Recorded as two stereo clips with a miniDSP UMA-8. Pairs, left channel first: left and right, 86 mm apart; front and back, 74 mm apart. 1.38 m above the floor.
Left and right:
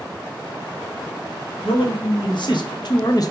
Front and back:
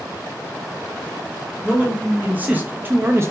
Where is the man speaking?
105° left, 1.6 m; by 3.3 s 135° left, 0.7 m.